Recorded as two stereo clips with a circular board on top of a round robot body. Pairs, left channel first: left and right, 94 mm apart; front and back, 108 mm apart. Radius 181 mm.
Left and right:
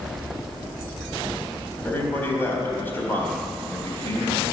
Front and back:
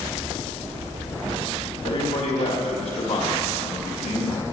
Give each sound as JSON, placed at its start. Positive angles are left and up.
{"t": 1.9, "sound": "a man speaking", "azimuth_deg": 20, "distance_m": 4.0}